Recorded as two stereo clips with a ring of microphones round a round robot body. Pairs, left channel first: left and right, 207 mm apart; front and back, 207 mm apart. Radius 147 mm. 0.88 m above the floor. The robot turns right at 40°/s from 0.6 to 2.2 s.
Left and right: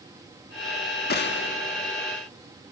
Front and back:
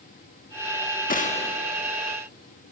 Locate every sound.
1.1 s a gunshot: 50° left, 1.4 m; by 1.6 s 70° left, 1.4 m